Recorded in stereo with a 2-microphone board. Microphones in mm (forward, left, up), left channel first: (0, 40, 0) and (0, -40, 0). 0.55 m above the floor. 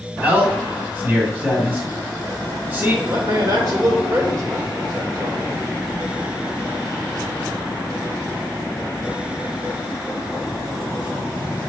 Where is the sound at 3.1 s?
55° right (ahead or behind), 1.9 m.